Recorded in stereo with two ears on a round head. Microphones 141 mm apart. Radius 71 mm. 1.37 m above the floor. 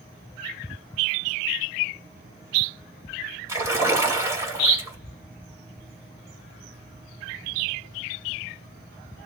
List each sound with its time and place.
3.5 s a splash: 20° right (ahead or behind), 3.5 m